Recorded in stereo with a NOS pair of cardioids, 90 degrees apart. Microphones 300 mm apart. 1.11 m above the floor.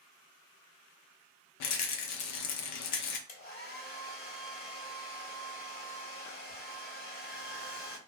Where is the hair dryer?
35° left, 1.4 m.